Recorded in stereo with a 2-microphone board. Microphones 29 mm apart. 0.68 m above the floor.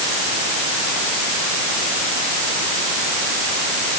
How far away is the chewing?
No chewing in this recording.